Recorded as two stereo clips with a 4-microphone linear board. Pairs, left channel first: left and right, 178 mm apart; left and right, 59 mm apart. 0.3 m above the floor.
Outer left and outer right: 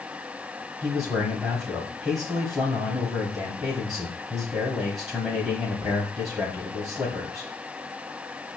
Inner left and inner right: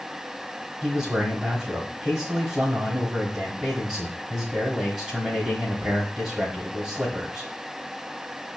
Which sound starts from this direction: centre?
A man speaking, at 0.8 s.